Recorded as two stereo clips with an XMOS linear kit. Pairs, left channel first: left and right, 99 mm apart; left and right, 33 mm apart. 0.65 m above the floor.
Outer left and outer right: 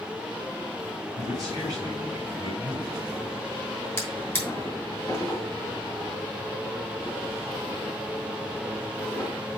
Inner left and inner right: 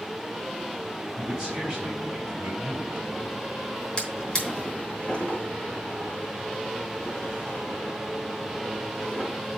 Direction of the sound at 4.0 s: 25° left (ahead or behind).